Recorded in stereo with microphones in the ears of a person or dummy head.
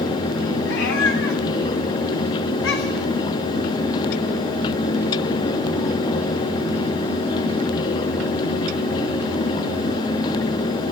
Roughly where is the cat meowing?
Left.